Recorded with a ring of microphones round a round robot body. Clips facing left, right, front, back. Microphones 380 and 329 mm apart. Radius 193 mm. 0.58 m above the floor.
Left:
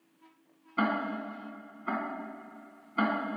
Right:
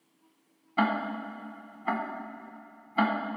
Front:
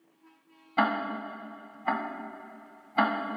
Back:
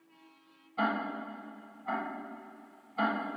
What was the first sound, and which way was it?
Ticking, 20° right.